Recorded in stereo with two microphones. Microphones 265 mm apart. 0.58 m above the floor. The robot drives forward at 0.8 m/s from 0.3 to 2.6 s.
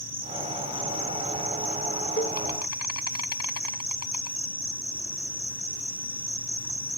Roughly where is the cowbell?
Left.